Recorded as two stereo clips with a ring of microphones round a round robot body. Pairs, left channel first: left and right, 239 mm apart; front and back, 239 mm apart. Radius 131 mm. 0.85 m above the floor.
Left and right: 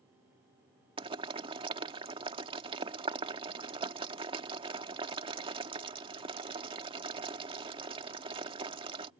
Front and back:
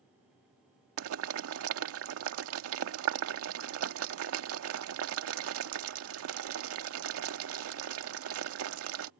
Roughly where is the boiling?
Behind.